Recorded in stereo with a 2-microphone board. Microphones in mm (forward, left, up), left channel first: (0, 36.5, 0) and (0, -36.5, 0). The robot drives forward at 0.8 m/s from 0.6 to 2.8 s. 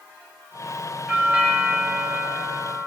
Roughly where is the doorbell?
Centre.